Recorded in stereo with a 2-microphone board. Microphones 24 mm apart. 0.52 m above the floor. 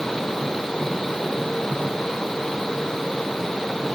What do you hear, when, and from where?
Only background noise.